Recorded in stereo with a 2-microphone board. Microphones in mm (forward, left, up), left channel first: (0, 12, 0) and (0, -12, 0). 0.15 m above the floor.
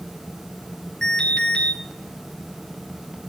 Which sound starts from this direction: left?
An alarm, at 1.0 s.